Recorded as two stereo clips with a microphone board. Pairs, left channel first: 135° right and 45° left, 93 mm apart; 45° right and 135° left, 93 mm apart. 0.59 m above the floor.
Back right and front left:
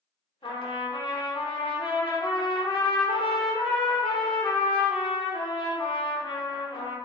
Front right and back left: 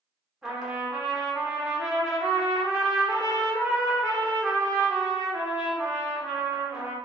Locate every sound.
0.4 s a trumpet: 145° right, 0.9 m